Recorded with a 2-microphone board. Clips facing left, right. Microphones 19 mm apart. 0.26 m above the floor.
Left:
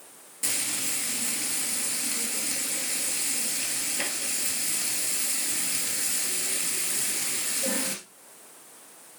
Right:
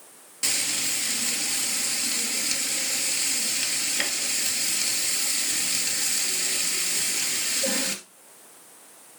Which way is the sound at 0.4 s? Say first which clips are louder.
Right 4 dB; 45° right (ahead or behind).